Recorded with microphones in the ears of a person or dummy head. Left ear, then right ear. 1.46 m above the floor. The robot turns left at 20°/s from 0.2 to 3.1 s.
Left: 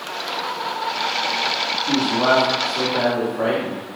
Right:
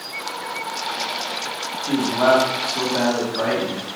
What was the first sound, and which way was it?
A man speaking, 70° right (ahead or behind).